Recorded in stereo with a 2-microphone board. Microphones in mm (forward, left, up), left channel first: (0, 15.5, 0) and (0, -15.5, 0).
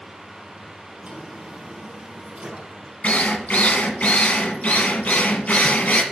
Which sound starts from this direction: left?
A drill, at 3.0 s.